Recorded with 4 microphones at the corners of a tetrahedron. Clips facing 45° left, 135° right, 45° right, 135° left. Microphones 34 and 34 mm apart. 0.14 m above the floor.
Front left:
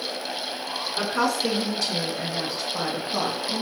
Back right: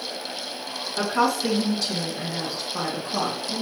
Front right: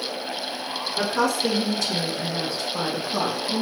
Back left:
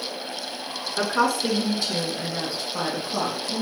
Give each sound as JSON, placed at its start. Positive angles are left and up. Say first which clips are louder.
{"t": 1.0, "sound": "a woman speaking", "louder": "back right 2 dB, back left 1 dB", "azimuth_deg": 135, "distance_m": 1.7}